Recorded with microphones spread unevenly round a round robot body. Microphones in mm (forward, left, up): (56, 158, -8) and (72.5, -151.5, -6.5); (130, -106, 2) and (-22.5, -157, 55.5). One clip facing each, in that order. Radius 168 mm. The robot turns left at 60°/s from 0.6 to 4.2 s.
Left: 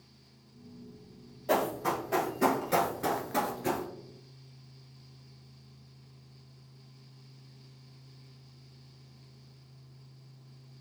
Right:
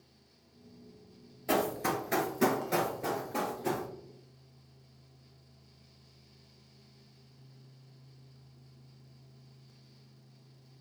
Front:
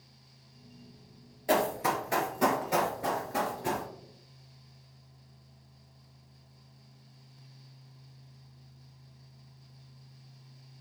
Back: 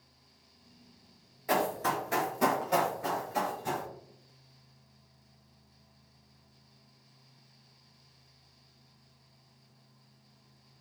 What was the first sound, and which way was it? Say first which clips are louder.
Running footsteps: left 1 dB, front 2 dB; 50° right.